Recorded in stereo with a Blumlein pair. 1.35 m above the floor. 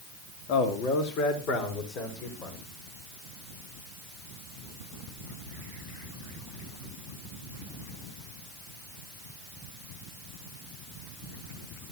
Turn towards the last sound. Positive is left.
turn(degrees=30)